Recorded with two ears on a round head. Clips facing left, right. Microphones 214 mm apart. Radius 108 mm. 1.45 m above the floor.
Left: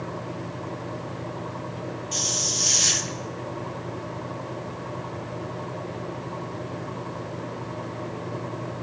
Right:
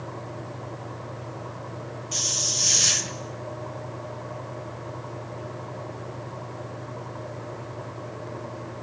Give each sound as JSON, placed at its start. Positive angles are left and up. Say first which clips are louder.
{"t": 2.1, "sound": "a hiss", "louder": "left 3 dB", "side_deg": 0, "distance_m": 0.6}